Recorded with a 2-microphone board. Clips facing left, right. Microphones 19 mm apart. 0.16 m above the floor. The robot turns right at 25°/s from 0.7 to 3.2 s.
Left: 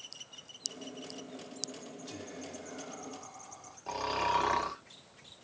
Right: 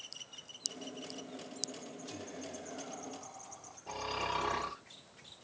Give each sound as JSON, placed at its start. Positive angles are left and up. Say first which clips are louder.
{"t": 2.1, "sound": "whispering", "louder": "left 1 dB", "side_deg": 20, "distance_m": 1.2}
{"t": 3.9, "sound": "snoring", "louder": "left 5 dB", "side_deg": 65, "distance_m": 1.2}